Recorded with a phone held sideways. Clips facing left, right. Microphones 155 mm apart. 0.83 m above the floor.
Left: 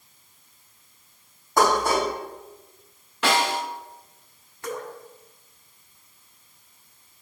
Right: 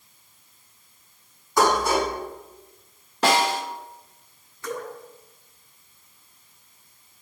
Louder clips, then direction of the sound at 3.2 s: Right 2 dB; 40° right (ahead or behind).